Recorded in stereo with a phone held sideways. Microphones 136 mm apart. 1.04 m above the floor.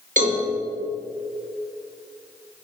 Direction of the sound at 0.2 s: 70° right (ahead or behind).